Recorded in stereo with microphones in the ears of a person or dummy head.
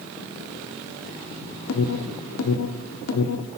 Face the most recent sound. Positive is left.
turn(degrees=75)  # may be behind; listen again after turning